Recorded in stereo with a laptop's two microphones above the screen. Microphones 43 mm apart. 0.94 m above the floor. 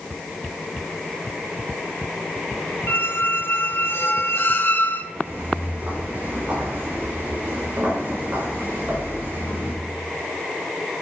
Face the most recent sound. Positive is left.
turn(degrees=-45)  # may be behind; listen again after turning